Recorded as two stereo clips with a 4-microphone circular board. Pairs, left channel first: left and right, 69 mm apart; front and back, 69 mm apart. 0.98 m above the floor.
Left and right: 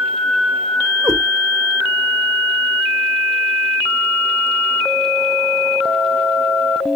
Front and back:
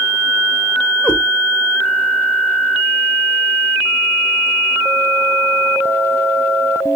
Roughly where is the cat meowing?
Right.